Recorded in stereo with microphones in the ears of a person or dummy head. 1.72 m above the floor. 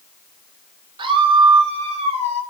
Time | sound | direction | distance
1.0 | a scream | 30° right (ahead or behind) | 2.5 m